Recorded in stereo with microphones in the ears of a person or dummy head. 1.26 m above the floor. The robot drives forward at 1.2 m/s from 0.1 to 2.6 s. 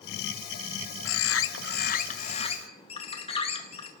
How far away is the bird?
About 1.0 m.